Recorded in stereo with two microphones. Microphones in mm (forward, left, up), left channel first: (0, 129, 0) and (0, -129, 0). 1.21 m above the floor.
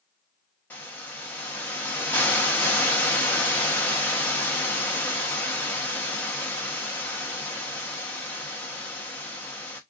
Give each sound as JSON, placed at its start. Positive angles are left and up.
{"t": 0.7, "sound": "a hiss", "side_deg": 5, "distance_m": 1.0}